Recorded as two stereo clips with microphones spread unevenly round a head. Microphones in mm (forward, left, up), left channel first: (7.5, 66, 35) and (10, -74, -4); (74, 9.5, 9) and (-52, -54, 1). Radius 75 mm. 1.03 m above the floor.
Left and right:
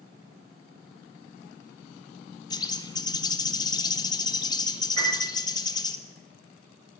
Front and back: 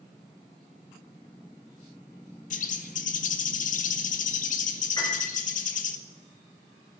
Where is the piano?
35° right, 8 m.